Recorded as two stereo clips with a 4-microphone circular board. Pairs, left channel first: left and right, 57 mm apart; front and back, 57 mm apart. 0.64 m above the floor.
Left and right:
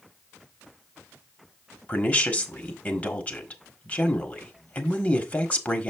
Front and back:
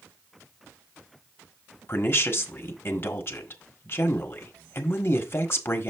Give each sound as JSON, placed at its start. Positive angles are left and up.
{"t": 1.9, "sound": "a woman speaking", "azimuth_deg": 35, "distance_m": 1.4}